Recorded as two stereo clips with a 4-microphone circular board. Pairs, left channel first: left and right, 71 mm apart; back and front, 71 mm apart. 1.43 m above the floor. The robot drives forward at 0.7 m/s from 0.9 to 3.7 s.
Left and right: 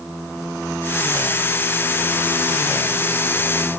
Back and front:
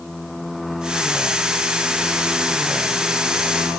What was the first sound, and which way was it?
Only background noise.